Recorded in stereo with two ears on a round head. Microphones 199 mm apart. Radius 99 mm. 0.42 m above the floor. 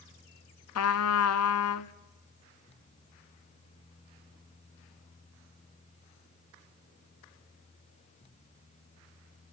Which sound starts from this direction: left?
A trumpet, at 0.8 s.